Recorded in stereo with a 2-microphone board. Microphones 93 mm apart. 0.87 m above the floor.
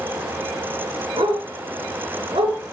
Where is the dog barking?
75° right (ahead or behind), 3.5 m; by 2.6 s 80° right, 3.5 m.